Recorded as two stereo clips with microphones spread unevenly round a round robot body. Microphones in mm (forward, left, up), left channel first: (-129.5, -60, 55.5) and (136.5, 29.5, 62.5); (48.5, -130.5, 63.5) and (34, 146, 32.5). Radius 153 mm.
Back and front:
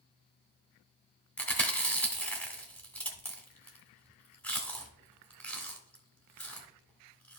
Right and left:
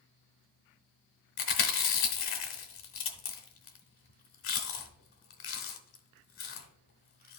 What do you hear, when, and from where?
1.4 s chewing: 75° right, 0.7 m